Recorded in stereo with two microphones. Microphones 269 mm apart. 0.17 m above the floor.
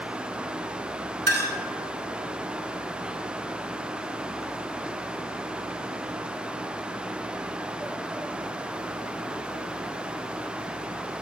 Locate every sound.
1.3 s a clink: 40° right (ahead or behind), 1.3 m